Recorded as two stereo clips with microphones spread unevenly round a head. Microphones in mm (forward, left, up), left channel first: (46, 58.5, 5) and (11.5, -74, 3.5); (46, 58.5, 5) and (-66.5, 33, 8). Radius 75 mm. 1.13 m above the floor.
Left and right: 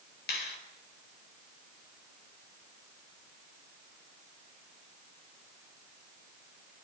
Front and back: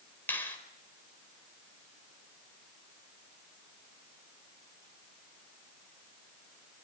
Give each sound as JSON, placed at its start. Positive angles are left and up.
{"t": 0.3, "sound": "a finger snap", "azimuth_deg": 85, "distance_m": 4.5}